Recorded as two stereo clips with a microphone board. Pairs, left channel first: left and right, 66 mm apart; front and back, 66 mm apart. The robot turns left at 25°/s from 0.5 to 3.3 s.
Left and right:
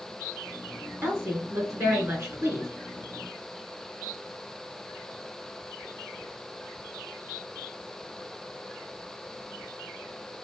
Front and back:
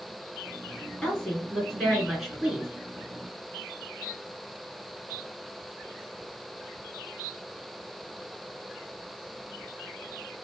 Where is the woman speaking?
65° right, 1.8 m; by 2.7 s 105° right, 1.8 m.